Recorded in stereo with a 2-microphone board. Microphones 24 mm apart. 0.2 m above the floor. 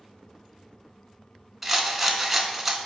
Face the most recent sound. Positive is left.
turn(degrees=-10)  # may be behind; listen again after turning